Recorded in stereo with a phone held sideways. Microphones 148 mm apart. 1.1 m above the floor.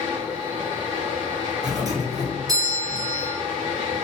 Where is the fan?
50° right (ahead or behind), 1.3 m.